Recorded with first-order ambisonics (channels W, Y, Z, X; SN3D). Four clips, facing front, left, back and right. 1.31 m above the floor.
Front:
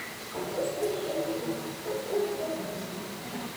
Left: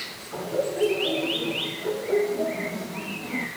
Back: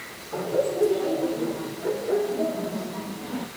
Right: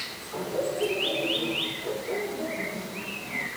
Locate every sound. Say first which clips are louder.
0.3 s laughter: left 2 dB, back 7 dB; 165° left, 5 m; by 3.5 s 145° left, 3.5 m